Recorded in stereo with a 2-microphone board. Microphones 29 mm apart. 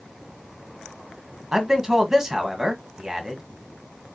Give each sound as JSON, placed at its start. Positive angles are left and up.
{"t": 1.5, "sound": "a man speaking", "side_deg": -20, "distance_m": 1.4}